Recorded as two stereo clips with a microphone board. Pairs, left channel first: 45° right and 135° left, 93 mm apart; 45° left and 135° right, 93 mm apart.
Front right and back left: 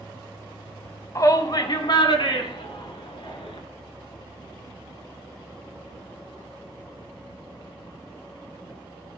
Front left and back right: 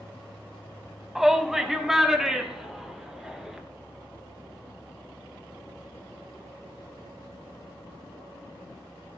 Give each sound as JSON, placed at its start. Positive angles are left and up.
{"t": 1.1, "sound": "a shout", "azimuth_deg": -50, "distance_m": 1.1}